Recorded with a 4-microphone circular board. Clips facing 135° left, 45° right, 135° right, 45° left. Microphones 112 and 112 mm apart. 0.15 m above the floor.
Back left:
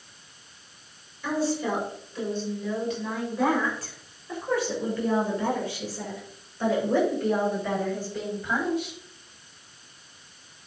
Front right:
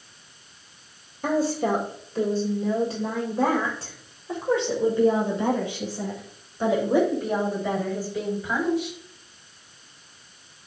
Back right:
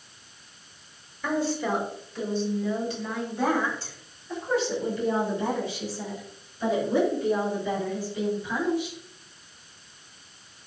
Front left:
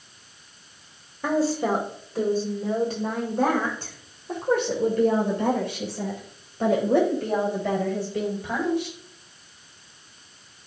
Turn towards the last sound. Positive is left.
turn(degrees=40)